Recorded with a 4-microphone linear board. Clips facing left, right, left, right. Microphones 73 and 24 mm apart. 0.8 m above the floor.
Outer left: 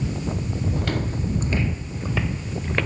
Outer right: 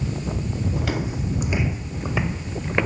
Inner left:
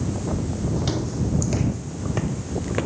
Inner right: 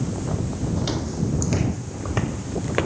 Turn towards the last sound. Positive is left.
turn(degrees=-20)  # may be behind; listen again after turning